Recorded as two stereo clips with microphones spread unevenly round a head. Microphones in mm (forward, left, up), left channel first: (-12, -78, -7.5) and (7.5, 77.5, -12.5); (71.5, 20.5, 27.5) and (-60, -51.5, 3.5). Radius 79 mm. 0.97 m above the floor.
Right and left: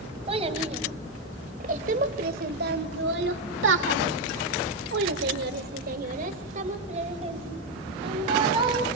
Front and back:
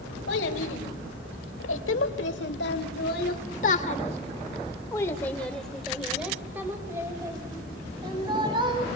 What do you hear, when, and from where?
0.3 s a child speaking: 25° left, 3.5 m; by 8.9 s 145° left, 4 m